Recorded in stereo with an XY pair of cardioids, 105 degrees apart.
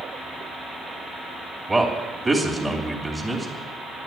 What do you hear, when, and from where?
1.7 s a man speaking: 10° right, 3 m